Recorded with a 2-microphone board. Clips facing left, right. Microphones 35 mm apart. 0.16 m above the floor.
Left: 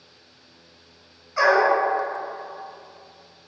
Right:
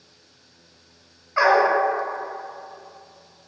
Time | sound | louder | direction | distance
1.4 | a dog barking | right 1 dB | 30° right (ahead or behind) | 0.6 m